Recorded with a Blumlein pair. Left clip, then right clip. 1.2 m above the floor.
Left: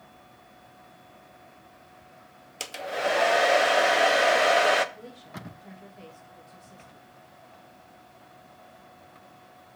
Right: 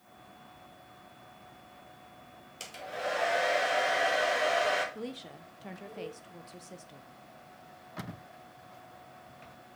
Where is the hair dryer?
65° left, 0.8 m.